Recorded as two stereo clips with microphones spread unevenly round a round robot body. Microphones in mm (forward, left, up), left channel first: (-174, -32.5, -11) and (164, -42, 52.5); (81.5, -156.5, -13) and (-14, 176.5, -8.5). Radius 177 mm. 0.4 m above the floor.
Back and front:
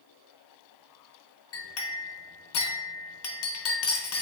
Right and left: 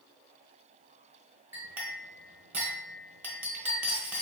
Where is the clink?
170° right, 0.9 m.